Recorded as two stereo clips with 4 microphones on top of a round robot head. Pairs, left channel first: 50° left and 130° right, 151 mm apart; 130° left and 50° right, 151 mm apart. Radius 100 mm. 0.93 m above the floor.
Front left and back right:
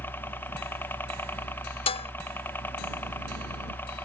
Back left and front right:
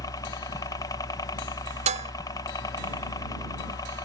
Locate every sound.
0.0 s a helicopter: 110° left
1.9 s dishes clattering: 5° right